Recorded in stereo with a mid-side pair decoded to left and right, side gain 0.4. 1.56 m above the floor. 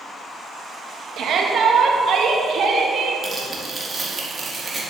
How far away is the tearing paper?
About 3.5 m.